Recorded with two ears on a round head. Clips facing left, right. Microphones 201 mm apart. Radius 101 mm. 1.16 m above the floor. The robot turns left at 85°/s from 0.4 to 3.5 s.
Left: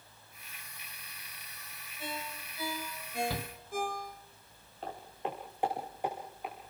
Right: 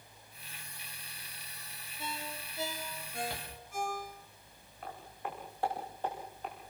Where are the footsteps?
25° left (ahead or behind), 6 m; by 6.5 s 5° left (ahead or behind), 7 m.